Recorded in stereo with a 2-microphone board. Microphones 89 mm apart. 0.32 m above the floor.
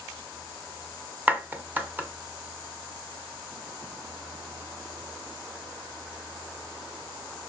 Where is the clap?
20° right (ahead or behind), 1.6 m.